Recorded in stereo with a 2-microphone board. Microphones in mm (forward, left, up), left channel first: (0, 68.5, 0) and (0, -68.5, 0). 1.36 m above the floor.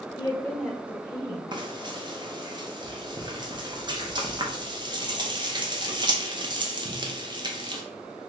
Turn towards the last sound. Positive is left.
turn(degrees=-35)  # may be behind; listen again after turning